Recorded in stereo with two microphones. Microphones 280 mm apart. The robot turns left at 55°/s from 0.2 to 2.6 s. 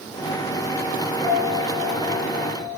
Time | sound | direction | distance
1.2 | a piano | straight ahead | 4.5 m